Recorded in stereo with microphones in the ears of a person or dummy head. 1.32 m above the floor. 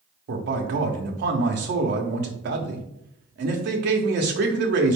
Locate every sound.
0.3 s a man speaking: 55° right (ahead or behind), 0.7 m